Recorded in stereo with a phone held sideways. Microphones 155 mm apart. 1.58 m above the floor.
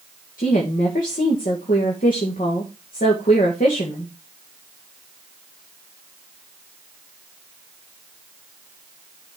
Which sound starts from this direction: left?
A woman speaking, at 0.4 s.